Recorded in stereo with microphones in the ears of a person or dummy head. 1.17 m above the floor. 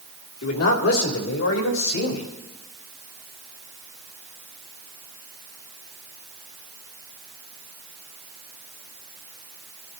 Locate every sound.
0.4 s a man speaking: 85° left, 2.5 m